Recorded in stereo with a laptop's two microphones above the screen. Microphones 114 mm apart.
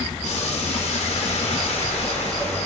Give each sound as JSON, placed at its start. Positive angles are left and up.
{"t": 0.2, "sound": "boiling", "side_deg": 80, "distance_m": 2.5}